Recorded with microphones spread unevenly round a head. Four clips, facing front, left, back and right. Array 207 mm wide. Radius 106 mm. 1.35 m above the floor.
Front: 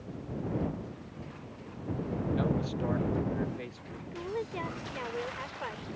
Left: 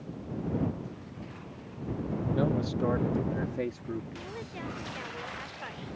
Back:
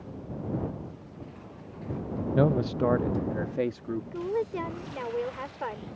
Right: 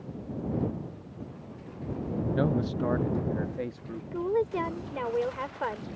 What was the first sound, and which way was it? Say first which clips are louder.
A man speaking: right 1 dB, back 10 dB; 175° right.